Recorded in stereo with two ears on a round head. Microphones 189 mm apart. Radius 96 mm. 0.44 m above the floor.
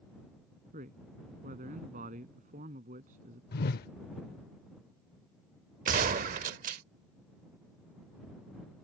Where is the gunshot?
40° right (ahead or behind).